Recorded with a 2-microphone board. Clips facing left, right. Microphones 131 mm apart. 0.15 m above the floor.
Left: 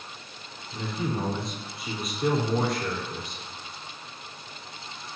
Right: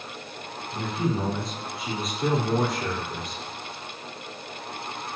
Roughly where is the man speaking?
Centre.